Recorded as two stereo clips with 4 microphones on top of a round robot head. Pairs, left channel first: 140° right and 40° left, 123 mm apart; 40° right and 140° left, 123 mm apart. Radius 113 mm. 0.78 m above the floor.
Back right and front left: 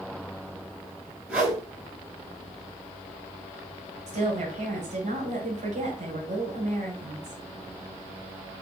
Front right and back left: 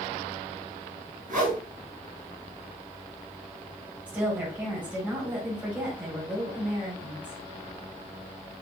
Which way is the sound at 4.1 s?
60° left.